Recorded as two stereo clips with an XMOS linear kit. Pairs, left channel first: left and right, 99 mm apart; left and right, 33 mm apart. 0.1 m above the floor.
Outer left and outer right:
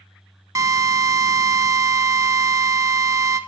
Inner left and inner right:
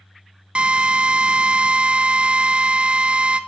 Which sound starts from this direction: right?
A drill, at 0.6 s.